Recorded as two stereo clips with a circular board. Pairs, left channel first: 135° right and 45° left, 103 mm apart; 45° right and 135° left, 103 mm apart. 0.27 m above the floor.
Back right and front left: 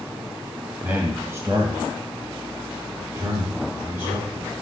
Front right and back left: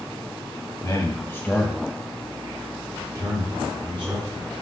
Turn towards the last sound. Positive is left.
turn(degrees=105)